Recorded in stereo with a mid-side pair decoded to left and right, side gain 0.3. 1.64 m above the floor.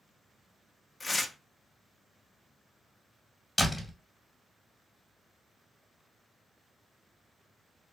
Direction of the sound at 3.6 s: 25° left.